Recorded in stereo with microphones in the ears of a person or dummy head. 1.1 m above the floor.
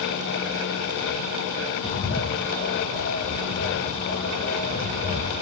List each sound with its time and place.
1.8 s a bird: 60° left (ahead or behind), 3 m